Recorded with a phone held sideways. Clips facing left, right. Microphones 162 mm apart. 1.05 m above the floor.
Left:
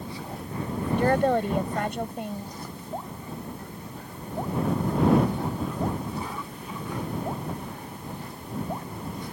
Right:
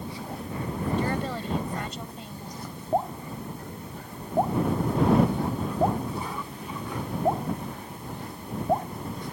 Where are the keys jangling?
No keys jangling in this recording.